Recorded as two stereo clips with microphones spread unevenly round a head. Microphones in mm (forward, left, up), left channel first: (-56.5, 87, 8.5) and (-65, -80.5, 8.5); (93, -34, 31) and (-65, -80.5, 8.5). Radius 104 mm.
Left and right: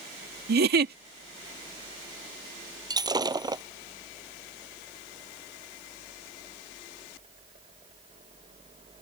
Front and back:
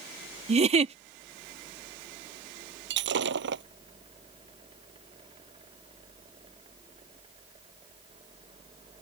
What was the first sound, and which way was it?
A giggle, 110° right.